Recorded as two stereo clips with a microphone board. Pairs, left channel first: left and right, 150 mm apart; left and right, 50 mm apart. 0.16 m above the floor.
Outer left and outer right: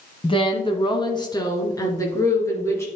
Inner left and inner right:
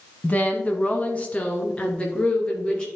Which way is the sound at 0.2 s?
35° left (ahead or behind).